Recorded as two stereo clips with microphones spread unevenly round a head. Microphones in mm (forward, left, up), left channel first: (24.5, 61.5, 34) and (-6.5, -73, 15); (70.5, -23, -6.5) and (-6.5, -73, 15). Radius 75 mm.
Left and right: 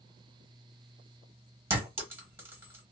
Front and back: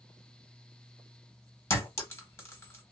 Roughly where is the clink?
Ahead right.